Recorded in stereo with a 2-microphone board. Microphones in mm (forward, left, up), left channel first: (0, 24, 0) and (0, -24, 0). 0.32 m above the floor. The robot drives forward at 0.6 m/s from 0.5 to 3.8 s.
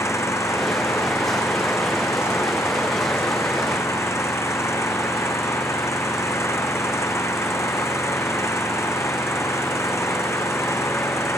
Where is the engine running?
75° left (ahead or behind); by 11.4 s 70° left (ahead or behind).